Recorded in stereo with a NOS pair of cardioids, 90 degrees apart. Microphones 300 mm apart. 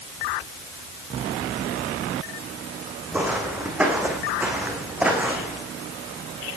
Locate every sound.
3.1 s footsteps: 5° right, 4 m